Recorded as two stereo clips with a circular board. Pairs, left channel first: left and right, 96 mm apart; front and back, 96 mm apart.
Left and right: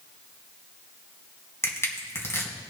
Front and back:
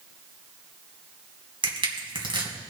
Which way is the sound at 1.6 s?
150° left.